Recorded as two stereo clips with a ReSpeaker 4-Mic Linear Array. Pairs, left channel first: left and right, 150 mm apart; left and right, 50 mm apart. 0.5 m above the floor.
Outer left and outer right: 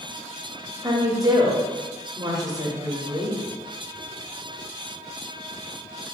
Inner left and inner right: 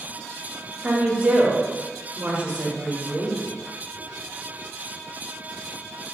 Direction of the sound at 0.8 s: 25° right (ahead or behind).